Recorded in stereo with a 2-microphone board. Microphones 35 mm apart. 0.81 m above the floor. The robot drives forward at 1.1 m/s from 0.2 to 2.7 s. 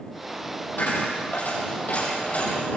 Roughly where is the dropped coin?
Left.